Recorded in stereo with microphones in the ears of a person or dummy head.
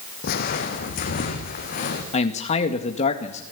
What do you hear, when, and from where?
0.2 s footsteps: 55° left (ahead or behind), 2.5 m; by 2.0 s 50° left (ahead or behind), 4 m
2.1 s a man speaking: 40° left (ahead or behind), 2 m